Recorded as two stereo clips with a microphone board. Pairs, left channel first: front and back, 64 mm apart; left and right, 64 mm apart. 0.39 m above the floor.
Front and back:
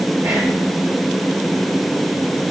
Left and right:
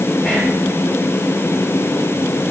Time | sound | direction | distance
0.2 | whispering | 150° left | 0.8 m